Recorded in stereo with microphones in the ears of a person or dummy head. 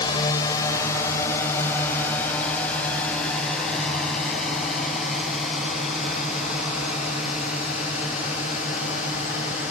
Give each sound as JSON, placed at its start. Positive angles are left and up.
{"t": 0.0, "sound": "a drone", "side_deg": 25}